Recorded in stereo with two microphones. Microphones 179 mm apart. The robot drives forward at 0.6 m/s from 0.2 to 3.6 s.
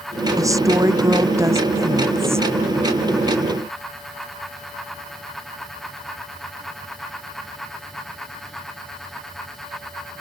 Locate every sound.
0.4 s a woman speaking: 20° right (ahead or behind); by 2.5 s 15° right (ahead or behind)